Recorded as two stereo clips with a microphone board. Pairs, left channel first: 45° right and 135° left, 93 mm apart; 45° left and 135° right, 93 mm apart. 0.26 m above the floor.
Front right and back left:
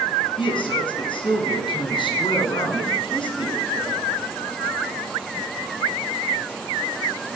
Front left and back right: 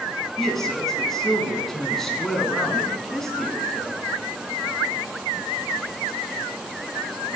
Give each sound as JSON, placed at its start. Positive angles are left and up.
{"t": 0.4, "sound": "a man speaking", "azimuth_deg": -40, "distance_m": 3.0}